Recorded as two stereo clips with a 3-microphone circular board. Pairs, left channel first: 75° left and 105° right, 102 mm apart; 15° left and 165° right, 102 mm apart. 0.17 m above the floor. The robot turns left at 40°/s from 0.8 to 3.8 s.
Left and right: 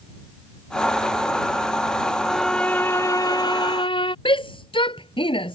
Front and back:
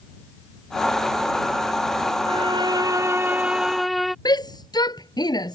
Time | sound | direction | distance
2.3 | a violin | 165° left | ?
4.2 | a shout | 55° left | ?